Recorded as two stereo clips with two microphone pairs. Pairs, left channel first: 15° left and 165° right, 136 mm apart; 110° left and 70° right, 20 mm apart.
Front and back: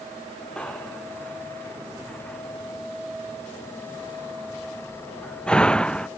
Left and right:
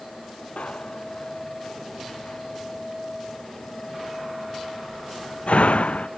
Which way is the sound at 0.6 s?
95° left.